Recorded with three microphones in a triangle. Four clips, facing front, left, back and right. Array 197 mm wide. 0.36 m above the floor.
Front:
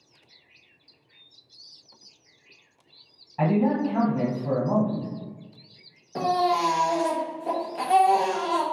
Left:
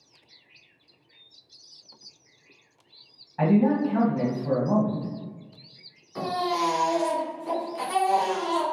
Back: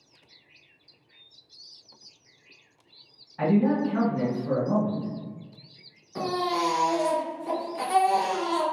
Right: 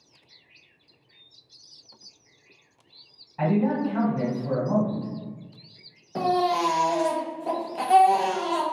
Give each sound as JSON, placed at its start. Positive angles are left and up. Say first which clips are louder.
{"t": 3.4, "sound": "a man speaking", "louder": "left 2 dB, even", "azimuth_deg": 35, "distance_m": 1.7}
{"t": 6.2, "sound": "a baby crying", "louder": "right 4 dB, front 4 dB", "azimuth_deg": -60, "distance_m": 0.9}